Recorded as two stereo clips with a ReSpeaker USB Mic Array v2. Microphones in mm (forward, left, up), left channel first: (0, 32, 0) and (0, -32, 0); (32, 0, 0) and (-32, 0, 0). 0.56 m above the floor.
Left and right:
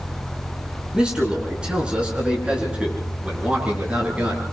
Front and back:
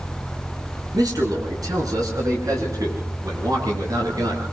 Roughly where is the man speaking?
Behind.